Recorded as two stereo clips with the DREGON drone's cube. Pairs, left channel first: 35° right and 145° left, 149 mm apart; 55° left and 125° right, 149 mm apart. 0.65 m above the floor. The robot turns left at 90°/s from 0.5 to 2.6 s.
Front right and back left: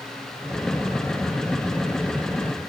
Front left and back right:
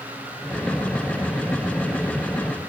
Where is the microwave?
No microwave in this recording.